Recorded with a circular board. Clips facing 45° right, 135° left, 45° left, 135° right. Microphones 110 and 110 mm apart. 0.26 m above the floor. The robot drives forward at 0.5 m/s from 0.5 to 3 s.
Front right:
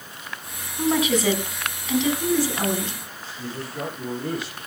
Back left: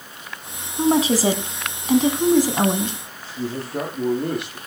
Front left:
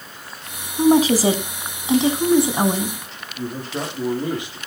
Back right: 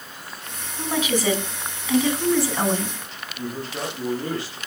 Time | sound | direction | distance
0.8 | a woman speaking | 85° left | 2.5 m
3.4 | a man speaking | 115° left | 8.5 m